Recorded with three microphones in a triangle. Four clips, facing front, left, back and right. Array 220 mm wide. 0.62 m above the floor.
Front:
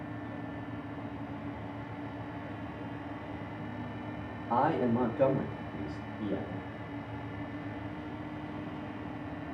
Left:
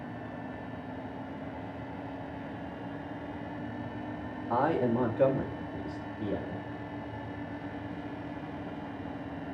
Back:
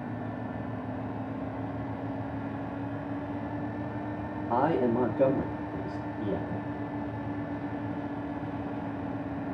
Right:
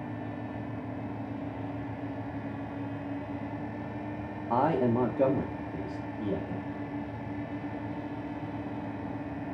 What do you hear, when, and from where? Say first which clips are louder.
4.5 s a man speaking: right 2 dB, back 2 dB; 125° right, 0.7 m